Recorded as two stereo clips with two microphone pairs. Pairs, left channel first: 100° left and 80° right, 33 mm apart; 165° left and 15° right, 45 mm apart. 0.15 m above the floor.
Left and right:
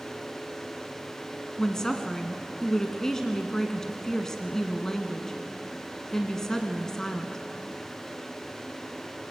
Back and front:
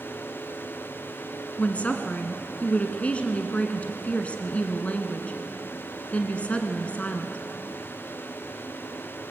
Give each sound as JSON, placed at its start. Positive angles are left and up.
{"t": 1.6, "sound": "a woman speaking", "azimuth_deg": 160, "distance_m": 1.6}